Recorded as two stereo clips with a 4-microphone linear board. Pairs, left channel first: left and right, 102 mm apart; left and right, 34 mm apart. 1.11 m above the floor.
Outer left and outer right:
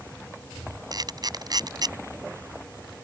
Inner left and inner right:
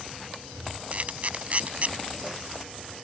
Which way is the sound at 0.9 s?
40° right (ahead or behind).